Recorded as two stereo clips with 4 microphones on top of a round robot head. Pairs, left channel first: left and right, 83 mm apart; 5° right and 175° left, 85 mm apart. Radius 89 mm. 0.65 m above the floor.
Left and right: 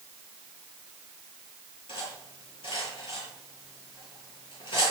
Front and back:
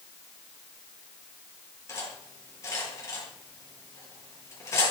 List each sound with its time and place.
1.9 s cutlery clinking: 55° left, 10 m